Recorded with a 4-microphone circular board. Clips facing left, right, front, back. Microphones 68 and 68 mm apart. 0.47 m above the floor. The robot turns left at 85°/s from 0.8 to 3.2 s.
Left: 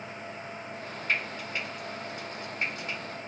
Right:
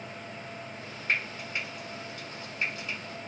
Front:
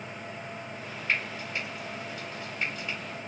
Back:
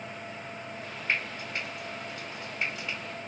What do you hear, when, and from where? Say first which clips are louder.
1.1 s frying: even, front 1 dB; 115° right, 1.3 m; by 3.0 s 80° left, 1.3 m